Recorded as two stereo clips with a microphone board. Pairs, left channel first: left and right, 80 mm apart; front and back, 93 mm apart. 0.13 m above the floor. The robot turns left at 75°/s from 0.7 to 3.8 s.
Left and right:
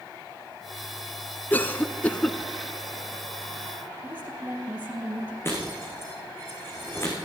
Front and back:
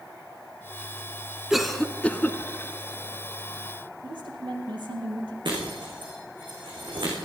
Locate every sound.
1.5 s a cough: 100° left, 1.1 m; by 2.4 s 30° left, 1.1 m
4.0 s a woman speaking: 160° right, 3.5 m
5.5 s breaking glass: 145° left, 4 m